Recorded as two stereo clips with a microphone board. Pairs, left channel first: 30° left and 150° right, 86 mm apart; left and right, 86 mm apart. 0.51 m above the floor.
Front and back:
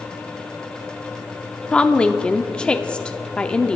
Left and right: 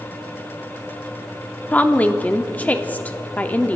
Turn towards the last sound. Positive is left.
turn(degrees=85)